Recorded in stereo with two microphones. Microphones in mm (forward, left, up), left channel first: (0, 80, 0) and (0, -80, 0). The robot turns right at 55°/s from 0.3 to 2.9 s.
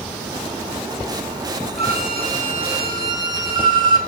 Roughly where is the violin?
Right.